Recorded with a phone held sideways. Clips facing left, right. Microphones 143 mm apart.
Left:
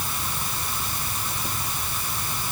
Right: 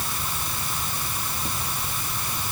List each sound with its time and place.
Only background noise.